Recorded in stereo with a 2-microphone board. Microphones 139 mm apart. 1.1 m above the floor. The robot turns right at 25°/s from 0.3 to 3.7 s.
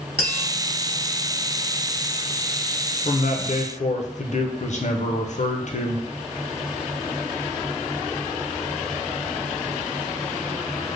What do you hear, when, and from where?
0.2 s tapping: 45° right (ahead or behind), 1.6 m; by 0.5 s 40° right (ahead or behind), 1.6 m
3.0 s a man speaking: 60° left (ahead or behind), 0.5 m; by 6.0 s 55° left (ahead or behind), 0.5 m